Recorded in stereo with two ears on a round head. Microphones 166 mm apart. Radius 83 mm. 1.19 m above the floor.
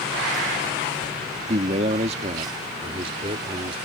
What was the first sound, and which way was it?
A man speaking, 35° right (ahead or behind).